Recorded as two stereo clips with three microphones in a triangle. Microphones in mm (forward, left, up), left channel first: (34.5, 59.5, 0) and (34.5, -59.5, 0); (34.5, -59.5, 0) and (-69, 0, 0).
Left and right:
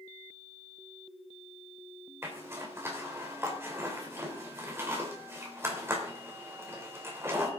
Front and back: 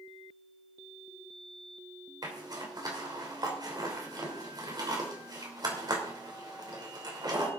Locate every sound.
2.2 s a zipper: 155° right, 3 m